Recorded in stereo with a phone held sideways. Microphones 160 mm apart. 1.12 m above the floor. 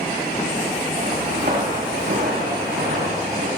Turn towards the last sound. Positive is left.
turn(degrees=-75)  # may be behind; listen again after turning